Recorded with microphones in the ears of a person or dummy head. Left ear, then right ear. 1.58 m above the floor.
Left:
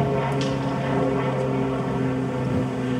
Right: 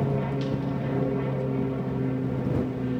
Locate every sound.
0.0 s an aircraft: 40° left (ahead or behind)